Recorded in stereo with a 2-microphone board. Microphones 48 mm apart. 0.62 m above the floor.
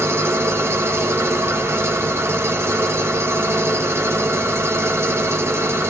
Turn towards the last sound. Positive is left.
turn(degrees=-65)  # may be behind; listen again after turning